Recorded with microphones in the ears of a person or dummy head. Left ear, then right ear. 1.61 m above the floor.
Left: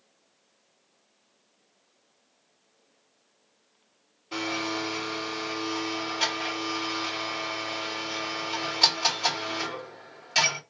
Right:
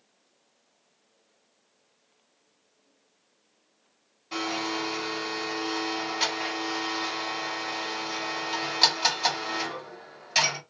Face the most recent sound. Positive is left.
turn(degrees=-15)  # may be behind; listen again after turning